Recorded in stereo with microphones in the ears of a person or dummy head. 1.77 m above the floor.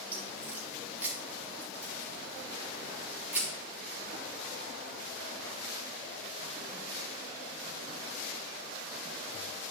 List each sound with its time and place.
0.1 s a crack: 15° right (ahead or behind), 3.5 m